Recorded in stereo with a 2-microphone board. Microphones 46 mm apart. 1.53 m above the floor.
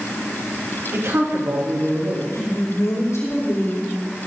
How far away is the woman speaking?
About 4.5 m.